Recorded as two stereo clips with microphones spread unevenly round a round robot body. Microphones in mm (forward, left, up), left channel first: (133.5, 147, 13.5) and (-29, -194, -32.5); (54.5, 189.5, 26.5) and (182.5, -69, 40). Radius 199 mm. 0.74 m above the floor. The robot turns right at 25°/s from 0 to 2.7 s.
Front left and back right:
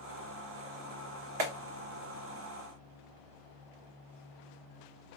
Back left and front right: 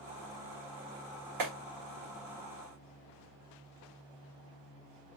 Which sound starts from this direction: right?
A clap, at 1.4 s.